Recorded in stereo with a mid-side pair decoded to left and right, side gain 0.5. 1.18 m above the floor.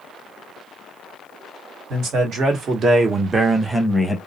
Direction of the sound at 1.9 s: 70° right.